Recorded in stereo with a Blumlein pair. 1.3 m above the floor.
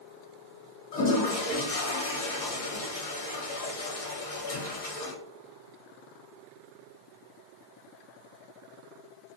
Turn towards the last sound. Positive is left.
turn(degrees=55)